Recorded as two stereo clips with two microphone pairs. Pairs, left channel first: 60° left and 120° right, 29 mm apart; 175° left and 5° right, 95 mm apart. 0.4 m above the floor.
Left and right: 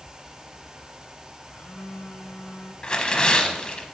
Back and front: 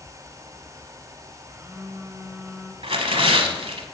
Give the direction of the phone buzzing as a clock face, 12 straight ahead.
10 o'clock.